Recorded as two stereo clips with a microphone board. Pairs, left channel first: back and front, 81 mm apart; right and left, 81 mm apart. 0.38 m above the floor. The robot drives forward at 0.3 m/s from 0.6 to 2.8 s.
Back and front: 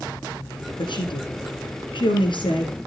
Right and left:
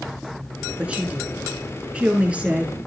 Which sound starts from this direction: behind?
A woman speaking, at 0.8 s.